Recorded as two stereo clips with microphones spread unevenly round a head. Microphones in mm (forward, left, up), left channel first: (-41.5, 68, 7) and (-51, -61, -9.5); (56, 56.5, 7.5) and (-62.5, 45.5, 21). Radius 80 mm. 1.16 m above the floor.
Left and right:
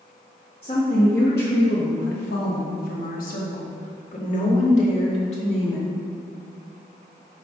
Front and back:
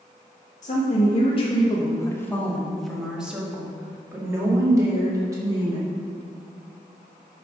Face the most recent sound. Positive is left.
turn(degrees=125)